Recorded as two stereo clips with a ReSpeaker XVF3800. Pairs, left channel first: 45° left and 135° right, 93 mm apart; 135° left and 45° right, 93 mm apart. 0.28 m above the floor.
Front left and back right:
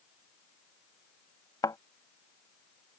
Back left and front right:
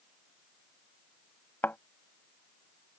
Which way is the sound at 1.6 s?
70° left.